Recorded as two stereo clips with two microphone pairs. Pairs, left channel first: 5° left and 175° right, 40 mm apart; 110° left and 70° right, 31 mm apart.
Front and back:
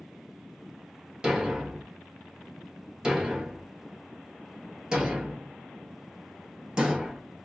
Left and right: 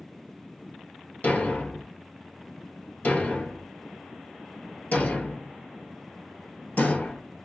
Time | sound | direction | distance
1.2 | a thud | 115° left | 1.2 m